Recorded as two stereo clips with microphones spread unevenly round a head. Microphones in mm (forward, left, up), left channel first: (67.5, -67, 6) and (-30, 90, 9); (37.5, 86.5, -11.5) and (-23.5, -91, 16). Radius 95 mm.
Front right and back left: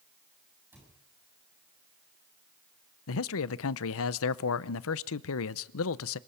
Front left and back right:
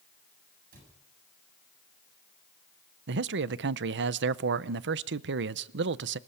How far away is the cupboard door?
About 9 m.